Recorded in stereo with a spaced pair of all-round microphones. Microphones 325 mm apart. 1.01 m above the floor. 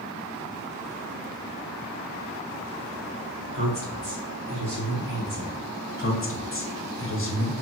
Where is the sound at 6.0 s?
40° left (ahead or behind), 0.5 m.